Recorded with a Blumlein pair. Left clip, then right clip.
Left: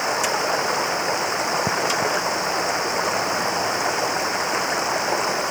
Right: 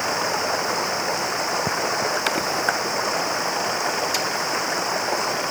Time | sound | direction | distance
0.0 | running water | 10° left | ?